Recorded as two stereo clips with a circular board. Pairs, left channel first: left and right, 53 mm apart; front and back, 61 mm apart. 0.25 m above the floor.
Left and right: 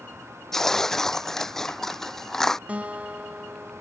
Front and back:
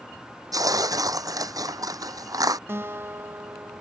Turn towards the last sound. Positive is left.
turn(degrees=-145)